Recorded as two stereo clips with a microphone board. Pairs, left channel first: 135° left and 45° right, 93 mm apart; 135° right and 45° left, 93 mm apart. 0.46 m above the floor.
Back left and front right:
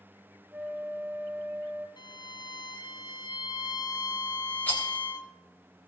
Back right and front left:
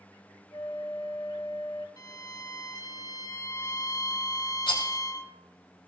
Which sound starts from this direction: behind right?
A rattle, at 4.7 s.